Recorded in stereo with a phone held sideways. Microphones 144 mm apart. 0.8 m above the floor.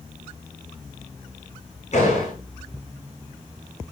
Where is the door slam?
50° left (ahead or behind), 9 m.